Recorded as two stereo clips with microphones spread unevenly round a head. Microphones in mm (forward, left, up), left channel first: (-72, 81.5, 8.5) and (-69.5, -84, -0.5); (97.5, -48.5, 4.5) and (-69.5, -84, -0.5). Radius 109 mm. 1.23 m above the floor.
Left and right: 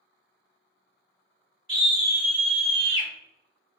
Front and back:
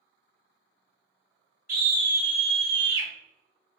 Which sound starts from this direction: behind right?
A scream, at 1.7 s.